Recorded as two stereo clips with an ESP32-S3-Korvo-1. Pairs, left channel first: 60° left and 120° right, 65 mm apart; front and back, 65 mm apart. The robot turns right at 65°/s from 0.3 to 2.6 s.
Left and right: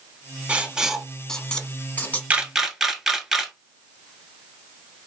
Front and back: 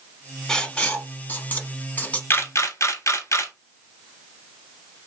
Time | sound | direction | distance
0.5 | writing | 70° right | 0.9 m
2.3 | a camera shutter | 55° right | 0.9 m